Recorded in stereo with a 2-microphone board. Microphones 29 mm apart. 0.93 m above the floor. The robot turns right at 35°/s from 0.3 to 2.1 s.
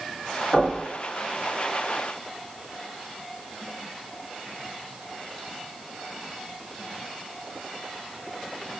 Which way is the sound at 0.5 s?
60° left (ahead or behind).